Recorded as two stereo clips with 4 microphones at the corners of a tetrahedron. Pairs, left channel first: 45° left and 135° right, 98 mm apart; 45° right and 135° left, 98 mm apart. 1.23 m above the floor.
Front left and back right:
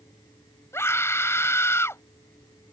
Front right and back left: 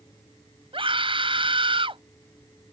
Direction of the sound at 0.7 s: 110° left.